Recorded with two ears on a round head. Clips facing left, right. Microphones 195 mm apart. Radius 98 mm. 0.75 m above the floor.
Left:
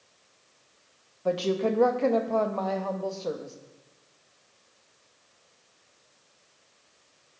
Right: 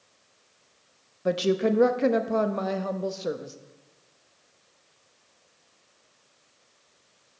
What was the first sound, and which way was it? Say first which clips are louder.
A woman speaking: right 2 dB; 20° right (ahead or behind).